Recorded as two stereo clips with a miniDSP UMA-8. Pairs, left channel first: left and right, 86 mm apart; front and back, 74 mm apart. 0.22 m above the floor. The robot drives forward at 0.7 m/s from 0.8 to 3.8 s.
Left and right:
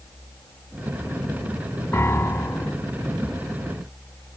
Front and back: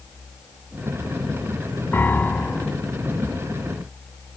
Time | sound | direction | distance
1.9 | a piano | 45° left | ?